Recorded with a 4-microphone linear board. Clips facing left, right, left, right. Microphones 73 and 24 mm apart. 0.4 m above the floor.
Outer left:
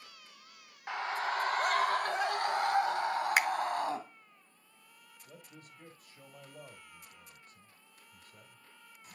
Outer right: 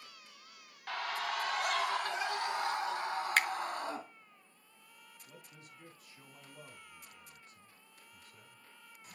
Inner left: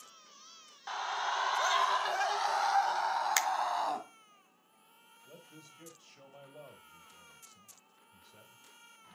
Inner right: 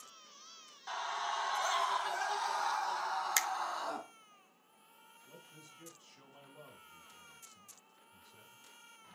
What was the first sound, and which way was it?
A scream, 20° left (ahead or behind).